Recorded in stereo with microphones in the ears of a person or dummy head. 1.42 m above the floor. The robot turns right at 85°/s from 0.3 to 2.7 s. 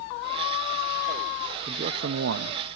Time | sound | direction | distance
1.7 | a man speaking | 150° right | 0.6 m